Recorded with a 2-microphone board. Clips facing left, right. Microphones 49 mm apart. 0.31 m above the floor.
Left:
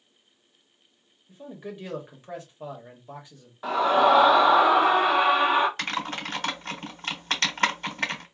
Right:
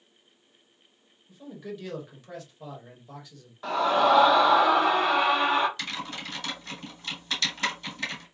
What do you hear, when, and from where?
1.3 s a man speaking: 20° left (ahead or behind), 1.2 m
3.6 s a scream: 10° left (ahead or behind), 0.9 m
5.8 s typing on a keyboard: 45° left (ahead or behind), 1.0 m